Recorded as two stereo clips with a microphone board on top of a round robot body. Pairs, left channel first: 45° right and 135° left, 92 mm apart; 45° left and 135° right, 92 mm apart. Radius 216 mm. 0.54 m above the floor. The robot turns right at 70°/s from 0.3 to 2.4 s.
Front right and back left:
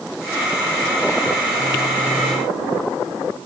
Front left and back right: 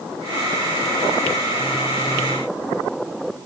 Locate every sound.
Only background noise.